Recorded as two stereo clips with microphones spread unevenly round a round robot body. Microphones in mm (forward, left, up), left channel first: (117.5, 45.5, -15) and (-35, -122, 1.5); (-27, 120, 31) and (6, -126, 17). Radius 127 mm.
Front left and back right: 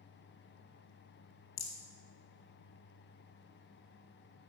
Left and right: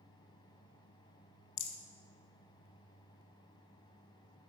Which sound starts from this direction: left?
A rattle, at 1.6 s.